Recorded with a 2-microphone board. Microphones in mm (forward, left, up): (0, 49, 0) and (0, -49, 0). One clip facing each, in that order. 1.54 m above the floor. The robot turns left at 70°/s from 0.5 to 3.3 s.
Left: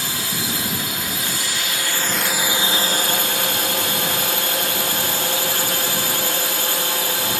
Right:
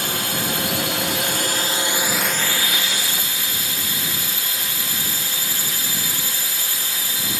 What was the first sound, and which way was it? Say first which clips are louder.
A drone: right 2 dB; 60° right.